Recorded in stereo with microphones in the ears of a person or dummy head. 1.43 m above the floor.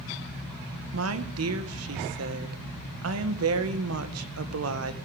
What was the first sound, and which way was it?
A woman speaking, 75° right (ahead or behind).